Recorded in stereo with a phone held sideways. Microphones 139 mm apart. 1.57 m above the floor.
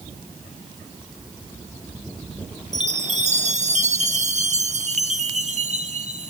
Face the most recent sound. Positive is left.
turn(degrees=-55)  # may be behind; listen again after turning